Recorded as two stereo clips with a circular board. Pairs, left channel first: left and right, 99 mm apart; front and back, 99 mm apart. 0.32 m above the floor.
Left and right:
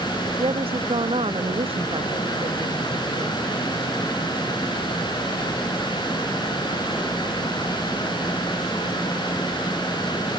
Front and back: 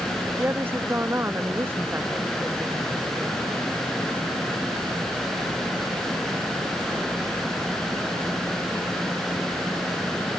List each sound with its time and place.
0.4 s a woman speaking: 110° right